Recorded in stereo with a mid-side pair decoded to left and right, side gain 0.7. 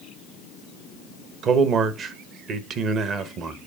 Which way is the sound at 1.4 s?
45° right.